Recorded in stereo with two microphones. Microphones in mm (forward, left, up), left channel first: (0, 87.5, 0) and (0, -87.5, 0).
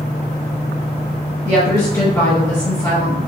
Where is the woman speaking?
25° left (ahead or behind), 1.0 m.